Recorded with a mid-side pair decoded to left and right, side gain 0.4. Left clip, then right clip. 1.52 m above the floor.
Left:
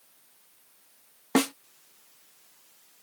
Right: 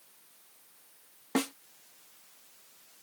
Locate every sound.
1.4 s a snare drum: 60° left